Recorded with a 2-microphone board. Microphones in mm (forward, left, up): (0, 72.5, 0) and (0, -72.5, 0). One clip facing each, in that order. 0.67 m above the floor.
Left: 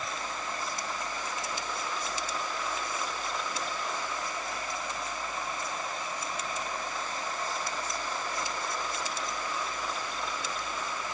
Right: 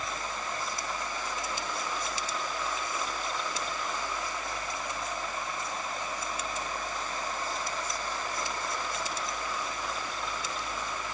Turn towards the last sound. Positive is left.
No sound to turn to.